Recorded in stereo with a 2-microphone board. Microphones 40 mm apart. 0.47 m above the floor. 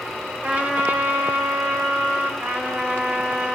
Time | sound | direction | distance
0.4 | a trumpet | 45° right (ahead or behind) | 2.5 m
2.4 | a trumpet | 55° right (ahead or behind) | 1.9 m